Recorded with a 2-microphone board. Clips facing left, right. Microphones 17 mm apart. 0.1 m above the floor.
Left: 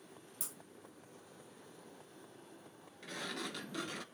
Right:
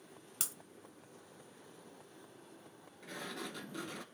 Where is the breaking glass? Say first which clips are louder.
Right 8 dB; 60° right (ahead or behind), 0.8 m.